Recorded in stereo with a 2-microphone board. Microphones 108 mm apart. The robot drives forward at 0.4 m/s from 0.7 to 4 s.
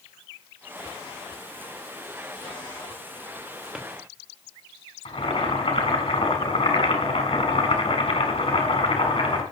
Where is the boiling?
70° left (ahead or behind), 3.5 m.